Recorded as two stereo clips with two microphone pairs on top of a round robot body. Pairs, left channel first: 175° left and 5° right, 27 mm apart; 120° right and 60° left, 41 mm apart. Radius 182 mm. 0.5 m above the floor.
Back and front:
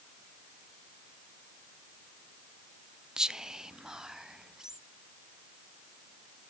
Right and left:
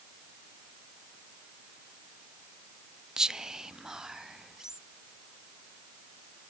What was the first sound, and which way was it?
Whispering, 15° right.